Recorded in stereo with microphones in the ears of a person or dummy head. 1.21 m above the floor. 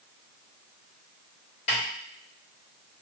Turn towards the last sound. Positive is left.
turn(degrees=35)  # may be behind; listen again after turning